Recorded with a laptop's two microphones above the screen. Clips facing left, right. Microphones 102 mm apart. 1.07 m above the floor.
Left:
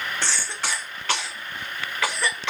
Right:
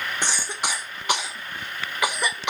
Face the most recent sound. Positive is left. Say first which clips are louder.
# right 1 dB
turn(degrees=-15)  # may be behind; listen again after turning